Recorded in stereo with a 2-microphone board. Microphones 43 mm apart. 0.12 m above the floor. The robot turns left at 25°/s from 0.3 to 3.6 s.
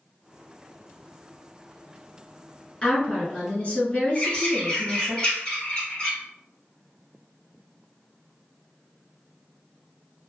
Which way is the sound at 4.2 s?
20° left (ahead or behind).